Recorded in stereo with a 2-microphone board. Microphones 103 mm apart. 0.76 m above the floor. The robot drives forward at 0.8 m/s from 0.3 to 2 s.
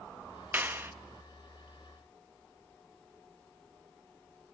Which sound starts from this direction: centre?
A clap, at 0.5 s.